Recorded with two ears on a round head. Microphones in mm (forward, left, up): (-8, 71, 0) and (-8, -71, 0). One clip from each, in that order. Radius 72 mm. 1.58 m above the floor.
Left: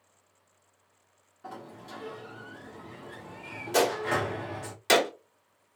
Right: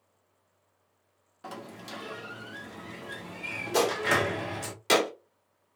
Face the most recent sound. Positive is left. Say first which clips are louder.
# even
turn(degrees=20)  # may be behind; listen again after turning